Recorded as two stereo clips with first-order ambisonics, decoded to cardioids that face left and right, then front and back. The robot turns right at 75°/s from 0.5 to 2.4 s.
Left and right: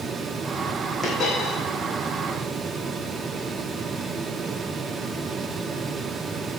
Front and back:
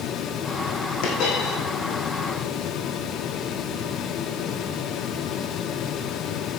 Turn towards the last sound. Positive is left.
turn(degrees=115)